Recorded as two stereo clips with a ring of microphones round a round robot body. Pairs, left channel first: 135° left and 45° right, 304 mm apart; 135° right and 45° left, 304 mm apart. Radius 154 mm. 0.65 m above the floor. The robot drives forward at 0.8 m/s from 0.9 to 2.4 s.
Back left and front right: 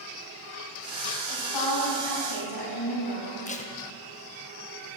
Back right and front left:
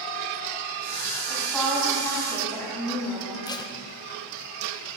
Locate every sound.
1.3 s a woman speaking: 135° left, 4.5 m; by 3.5 s 145° left, 5.5 m
3.5 s tape being pulled: 165° left, 0.7 m